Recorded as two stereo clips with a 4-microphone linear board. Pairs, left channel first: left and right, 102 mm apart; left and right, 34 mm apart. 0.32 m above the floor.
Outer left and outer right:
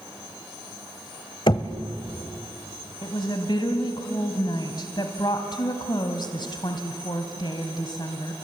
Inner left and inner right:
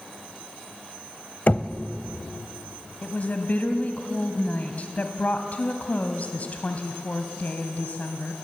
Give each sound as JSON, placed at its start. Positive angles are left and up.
{"t": 1.5, "sound": "knocking", "side_deg": 50, "distance_m": 1.1}
{"t": 3.0, "sound": "a woman speaking", "side_deg": 45, "distance_m": 1.7}